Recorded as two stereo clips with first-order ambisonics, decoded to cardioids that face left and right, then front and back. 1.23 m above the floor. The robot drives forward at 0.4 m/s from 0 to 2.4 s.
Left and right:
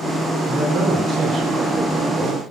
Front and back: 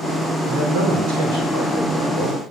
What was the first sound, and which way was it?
A man speaking, 150° right.